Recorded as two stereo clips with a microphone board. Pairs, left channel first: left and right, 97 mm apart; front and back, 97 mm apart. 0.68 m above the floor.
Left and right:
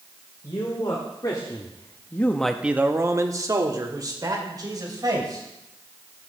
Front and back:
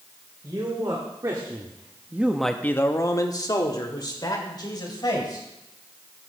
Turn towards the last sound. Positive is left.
turn(degrees=-45)